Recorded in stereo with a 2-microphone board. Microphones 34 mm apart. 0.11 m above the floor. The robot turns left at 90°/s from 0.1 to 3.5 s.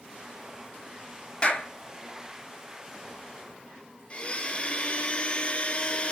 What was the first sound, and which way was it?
A clap, 30° left (ahead or behind).